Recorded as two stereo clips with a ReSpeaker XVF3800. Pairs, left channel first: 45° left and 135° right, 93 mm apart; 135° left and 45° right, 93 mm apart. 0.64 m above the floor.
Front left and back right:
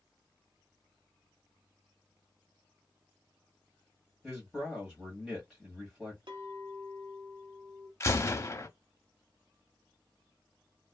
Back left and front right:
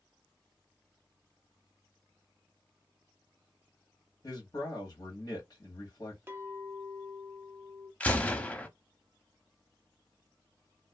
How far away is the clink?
About 0.7 m.